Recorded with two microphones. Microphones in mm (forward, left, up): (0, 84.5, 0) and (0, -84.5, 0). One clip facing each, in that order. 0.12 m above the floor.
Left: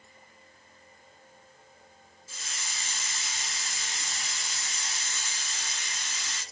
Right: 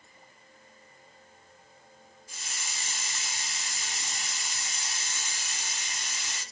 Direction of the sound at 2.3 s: 15° right (ahead or behind).